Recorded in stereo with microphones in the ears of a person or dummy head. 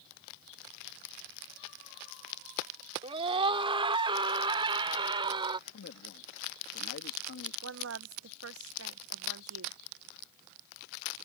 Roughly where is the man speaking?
Left.